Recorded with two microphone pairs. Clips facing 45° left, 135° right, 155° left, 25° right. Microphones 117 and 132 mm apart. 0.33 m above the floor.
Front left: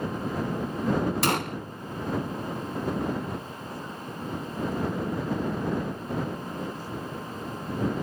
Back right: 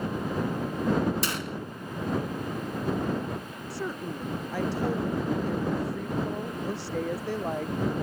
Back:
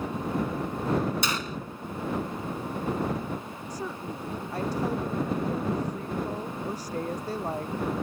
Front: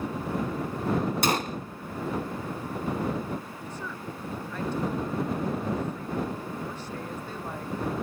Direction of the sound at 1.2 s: 20° left.